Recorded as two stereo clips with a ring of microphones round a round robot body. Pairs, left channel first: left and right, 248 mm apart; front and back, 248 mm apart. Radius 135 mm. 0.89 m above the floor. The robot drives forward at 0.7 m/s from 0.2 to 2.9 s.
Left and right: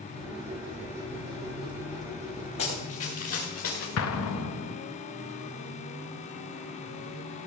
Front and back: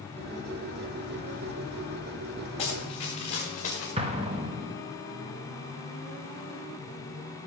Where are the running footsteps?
65° left, 3.5 m; by 3.9 s 60° left, 4.5 m.